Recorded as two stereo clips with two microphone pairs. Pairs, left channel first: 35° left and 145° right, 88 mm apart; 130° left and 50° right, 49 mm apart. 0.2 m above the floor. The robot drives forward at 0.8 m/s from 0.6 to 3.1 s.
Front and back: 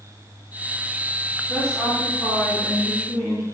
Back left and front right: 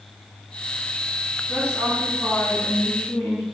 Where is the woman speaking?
100° left, 2.5 m; by 3.4 s 135° left, 3 m.